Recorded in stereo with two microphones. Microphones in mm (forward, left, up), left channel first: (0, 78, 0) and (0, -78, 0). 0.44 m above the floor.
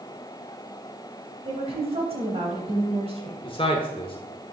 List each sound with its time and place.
1.4 s a woman speaking: 40° right (ahead or behind), 2.5 m
3.4 s a man speaking: 35° left (ahead or behind), 1.0 m